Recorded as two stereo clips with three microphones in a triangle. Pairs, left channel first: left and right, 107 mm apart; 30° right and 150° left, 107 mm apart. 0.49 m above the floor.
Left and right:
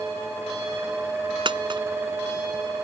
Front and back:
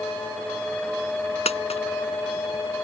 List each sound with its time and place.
1.4 s a dropped coin: 45° right